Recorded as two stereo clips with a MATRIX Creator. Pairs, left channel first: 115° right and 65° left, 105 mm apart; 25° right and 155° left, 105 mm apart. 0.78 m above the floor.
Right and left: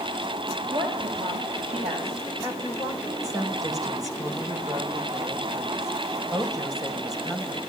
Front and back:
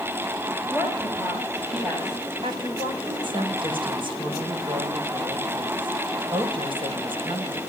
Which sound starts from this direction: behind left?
A woman speaking, at 2.4 s.